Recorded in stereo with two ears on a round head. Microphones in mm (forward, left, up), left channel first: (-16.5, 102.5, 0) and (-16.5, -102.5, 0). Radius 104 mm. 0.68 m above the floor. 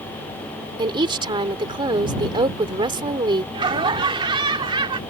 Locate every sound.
0.8 s a woman speaking: 25° right (ahead or behind)
3.5 s laughter: 20° right (ahead or behind)